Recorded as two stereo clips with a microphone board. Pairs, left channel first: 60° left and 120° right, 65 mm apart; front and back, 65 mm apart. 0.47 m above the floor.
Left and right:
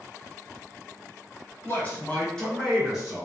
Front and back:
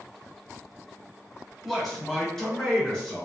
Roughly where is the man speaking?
Left.